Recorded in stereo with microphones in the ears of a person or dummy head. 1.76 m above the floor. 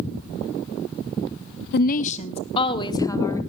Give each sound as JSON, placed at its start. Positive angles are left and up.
{"t": 1.7, "sound": "a woman speaking", "side_deg": 60, "distance_m": 0.7}